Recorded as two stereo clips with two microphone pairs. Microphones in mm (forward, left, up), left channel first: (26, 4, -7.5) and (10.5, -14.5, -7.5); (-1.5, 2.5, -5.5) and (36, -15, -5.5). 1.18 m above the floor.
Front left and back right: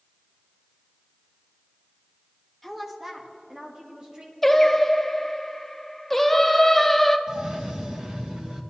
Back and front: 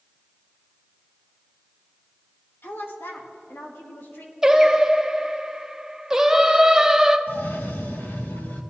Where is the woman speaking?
130° left, 1.5 m; by 4.3 s straight behind, 2.5 m.